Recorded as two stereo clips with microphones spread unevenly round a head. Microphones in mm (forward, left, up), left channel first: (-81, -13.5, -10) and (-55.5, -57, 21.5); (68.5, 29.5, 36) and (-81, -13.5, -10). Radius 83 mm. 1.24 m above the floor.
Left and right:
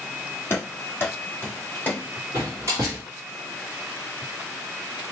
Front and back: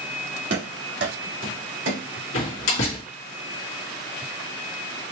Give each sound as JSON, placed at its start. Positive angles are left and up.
{"t": 0.5, "sound": "running footsteps", "azimuth_deg": 180, "distance_m": 2.0}
{"t": 2.3, "sound": "a door slam", "azimuth_deg": 15, "distance_m": 1.7}